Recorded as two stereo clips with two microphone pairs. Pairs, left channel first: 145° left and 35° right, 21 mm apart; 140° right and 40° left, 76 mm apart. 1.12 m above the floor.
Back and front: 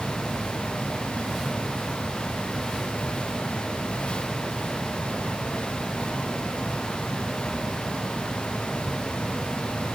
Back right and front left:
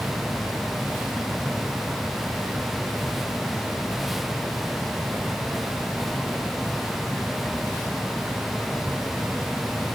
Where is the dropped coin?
No dropped coin in this recording.